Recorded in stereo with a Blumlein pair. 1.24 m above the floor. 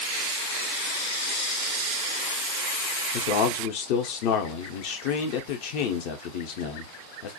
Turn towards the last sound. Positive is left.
turn(degrees=45)